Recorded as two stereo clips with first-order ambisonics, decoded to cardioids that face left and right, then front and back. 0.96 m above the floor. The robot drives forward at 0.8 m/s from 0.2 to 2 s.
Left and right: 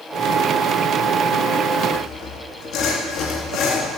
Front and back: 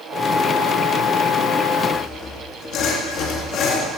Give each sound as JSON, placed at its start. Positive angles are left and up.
{"t": 1.9, "sound": "sawing", "azimuth_deg": 45, "distance_m": 1.9}